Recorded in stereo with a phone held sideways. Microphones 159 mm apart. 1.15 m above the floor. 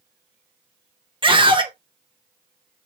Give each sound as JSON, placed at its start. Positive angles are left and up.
{"t": 1.2, "sound": "a scream", "side_deg": -30, "distance_m": 0.9}